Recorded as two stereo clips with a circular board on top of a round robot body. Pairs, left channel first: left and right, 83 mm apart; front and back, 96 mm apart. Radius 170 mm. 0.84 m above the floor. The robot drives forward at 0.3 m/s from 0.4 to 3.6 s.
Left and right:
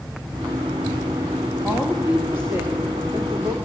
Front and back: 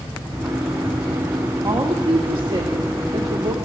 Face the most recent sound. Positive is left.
turn(degrees=-150)